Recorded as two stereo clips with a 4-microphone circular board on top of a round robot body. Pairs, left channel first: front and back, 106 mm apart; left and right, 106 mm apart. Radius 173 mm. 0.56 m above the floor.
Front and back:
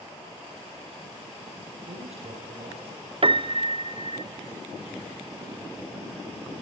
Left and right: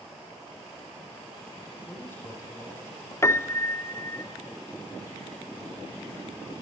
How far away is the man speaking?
About 9.5 m.